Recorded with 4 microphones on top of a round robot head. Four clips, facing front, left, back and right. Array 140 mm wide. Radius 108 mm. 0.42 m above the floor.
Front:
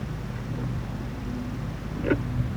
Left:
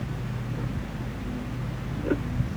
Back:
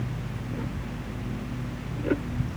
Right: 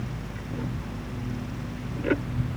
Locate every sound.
Only background noise.